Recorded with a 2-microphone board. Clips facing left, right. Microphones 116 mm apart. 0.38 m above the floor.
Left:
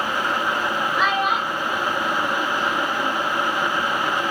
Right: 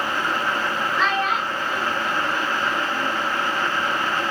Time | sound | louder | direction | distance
1.0 | a child speaking | left 1 dB | 10° left (ahead or behind) | 0.8 m